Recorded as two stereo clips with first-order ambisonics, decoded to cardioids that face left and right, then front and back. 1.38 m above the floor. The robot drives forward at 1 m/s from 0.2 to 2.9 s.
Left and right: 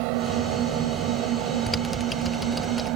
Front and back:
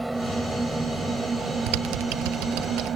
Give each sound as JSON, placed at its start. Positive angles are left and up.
{"t": 0.0, "sound": "an engine running", "azimuth_deg": -100}
{"t": 1.7, "sound": "typing on a keyboard", "azimuth_deg": 175}